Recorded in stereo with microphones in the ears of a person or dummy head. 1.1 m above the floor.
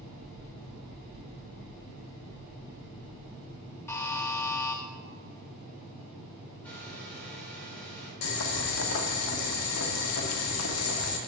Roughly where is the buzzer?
Centre.